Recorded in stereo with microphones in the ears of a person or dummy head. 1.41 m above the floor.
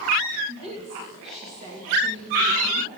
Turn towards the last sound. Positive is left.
turn(degrees=-30)  # may be behind; listen again after turning